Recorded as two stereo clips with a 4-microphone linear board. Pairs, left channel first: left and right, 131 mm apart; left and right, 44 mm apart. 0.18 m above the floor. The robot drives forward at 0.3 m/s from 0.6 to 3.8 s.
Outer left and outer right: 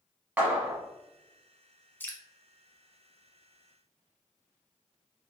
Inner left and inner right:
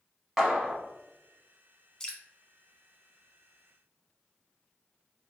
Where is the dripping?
15° left (ahead or behind), 0.6 m.